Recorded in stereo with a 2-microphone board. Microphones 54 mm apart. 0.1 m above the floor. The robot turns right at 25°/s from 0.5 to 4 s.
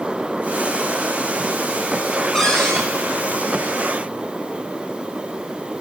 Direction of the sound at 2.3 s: 10° left (ahead or behind).